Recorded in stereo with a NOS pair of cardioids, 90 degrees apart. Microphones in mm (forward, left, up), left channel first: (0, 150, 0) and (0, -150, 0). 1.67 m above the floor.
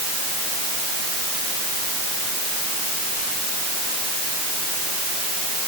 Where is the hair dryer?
I don't hear a hair dryer.